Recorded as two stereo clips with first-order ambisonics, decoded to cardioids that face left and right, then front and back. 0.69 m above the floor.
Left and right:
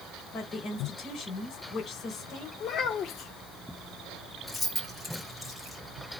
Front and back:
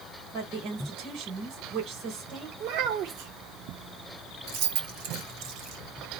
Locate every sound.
0.3 s a woman speaking: 145° left, 3 m
2.6 s a child speaking: 145° left, 1.3 m
4.5 s keys jangling: straight behind, 3 m